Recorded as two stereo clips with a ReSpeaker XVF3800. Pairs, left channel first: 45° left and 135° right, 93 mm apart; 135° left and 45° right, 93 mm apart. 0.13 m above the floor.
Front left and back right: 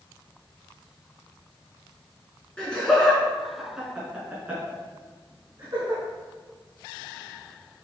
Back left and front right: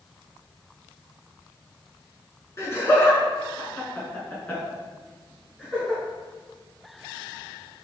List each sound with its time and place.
2.6 s laughter: 115° left, 1.7 m; by 6.0 s 135° right, 1.8 m